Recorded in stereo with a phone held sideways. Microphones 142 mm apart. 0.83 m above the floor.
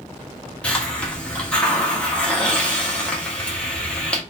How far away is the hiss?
About 1.3 m.